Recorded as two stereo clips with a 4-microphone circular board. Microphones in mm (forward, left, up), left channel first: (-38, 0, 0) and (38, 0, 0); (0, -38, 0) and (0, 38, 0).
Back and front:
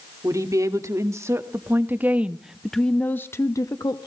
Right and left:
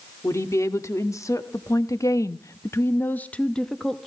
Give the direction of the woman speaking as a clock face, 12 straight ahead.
1 o'clock.